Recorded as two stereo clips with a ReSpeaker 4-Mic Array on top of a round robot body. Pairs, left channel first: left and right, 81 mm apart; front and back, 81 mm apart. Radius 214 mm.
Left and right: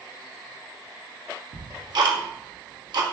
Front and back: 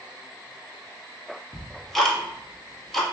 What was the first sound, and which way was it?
Ticking, 85° right.